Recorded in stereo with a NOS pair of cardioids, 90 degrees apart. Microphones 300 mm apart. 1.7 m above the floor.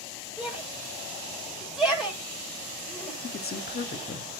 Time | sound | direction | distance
0.4 | a shout | straight ahead | 6.5 m
3.2 | a man speaking | 30° left | 1.5 m